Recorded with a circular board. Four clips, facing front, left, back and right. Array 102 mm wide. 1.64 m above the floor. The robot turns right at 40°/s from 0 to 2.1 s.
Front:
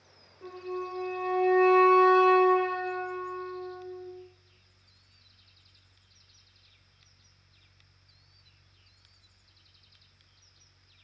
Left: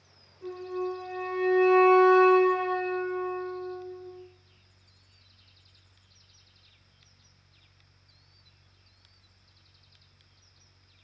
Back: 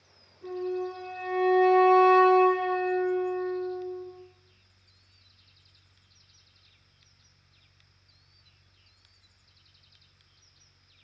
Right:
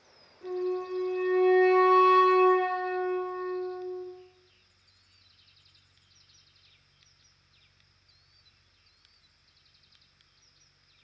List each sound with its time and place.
0.4 s a flute: 10° right, 1.4 m; by 4.0 s 60° left, 1.4 m